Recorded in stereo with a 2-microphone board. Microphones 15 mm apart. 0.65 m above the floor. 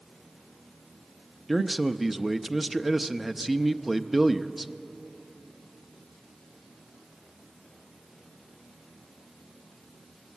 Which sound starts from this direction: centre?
A man speaking, at 1.5 s.